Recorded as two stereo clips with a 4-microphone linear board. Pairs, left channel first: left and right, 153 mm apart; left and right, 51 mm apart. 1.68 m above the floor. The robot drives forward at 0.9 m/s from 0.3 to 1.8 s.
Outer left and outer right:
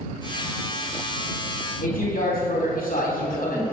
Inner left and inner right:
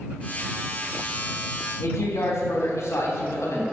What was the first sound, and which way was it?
A man speaking, 70° left (ahead or behind).